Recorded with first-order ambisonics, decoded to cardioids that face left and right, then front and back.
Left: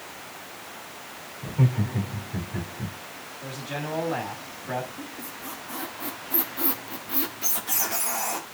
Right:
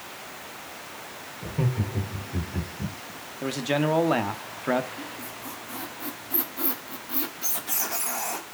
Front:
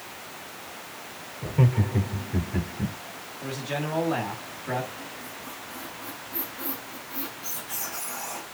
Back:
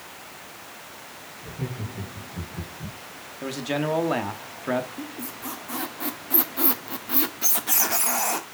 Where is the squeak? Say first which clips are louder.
Right 1 dB, back 2 dB; 175° left, 1.1 m.